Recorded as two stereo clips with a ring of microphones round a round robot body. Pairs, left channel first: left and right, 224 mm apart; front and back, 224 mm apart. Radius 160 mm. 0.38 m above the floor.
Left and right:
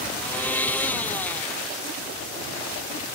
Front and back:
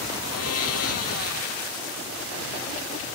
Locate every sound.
0.1 s a blender: 5° left